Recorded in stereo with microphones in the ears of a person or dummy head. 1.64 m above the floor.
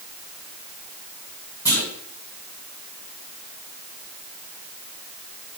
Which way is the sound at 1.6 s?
25° left (ahead or behind).